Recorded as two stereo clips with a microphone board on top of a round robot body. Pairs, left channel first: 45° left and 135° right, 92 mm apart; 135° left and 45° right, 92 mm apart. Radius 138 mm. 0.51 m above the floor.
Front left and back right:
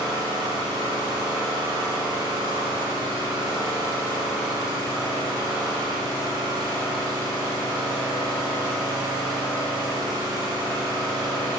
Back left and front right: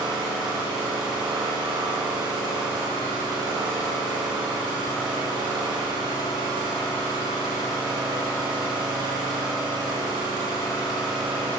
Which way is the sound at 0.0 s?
85° right.